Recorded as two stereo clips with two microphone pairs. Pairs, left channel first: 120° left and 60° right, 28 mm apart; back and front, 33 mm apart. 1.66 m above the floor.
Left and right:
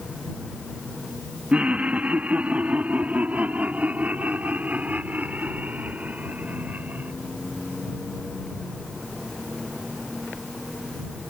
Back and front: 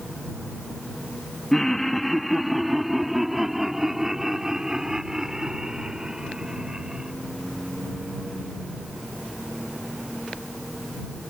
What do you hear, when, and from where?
1.5 s laughter: 95° right; by 7.1 s 60° right